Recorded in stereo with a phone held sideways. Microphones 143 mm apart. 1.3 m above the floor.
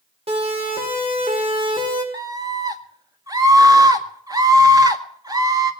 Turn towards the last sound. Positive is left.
turn(degrees=-25)  # may be behind; listen again after turning